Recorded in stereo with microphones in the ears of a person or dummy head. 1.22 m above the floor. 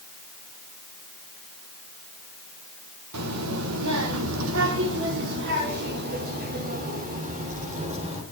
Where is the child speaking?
90° right, 2.5 m; by 8.2 s 35° right (ahead or behind), 3.5 m.